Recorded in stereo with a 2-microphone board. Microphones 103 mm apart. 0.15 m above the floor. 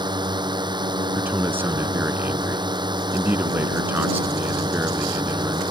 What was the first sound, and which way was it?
A drone, 45° right (ahead or behind).